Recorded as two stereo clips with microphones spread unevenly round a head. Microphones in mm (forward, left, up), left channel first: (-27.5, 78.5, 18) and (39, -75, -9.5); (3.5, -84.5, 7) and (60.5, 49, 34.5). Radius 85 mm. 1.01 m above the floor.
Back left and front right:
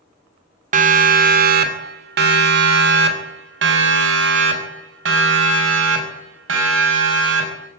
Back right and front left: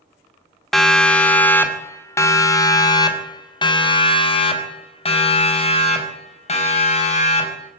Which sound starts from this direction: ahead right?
A siren, at 0.7 s.